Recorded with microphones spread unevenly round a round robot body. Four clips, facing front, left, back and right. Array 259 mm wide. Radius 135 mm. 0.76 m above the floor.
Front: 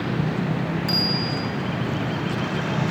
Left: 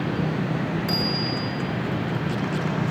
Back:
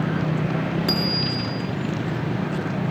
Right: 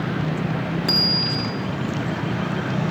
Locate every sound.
0.9 s a bicycle bell: 135° right, 8.5 m